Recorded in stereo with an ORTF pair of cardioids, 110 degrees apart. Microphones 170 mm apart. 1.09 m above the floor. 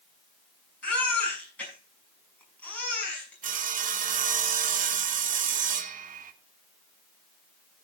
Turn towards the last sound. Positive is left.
turn(degrees=-50)